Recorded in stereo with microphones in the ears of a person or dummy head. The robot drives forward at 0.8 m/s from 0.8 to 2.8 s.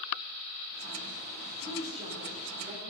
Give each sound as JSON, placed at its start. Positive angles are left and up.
{"t": 1.6, "sound": "a woman speaking", "side_deg": -30, "distance_m": 4.5}